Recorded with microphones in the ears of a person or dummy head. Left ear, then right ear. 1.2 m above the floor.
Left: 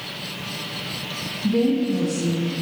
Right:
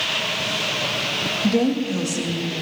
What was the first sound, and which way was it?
A woman speaking, 55° right (ahead or behind).